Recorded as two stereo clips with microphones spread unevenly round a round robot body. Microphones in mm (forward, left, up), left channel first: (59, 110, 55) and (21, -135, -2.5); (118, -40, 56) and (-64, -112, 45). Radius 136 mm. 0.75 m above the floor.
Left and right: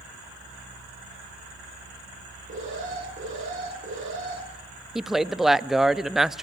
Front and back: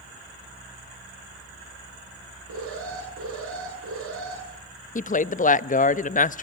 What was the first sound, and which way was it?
An alarm, 160° right.